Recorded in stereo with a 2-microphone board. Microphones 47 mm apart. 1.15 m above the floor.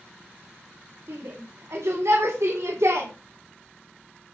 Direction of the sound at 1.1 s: 65° right (ahead or behind).